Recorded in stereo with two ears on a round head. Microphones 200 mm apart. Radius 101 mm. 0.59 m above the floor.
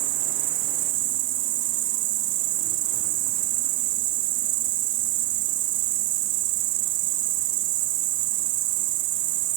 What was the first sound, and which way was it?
An insect, 70° right (ahead or behind).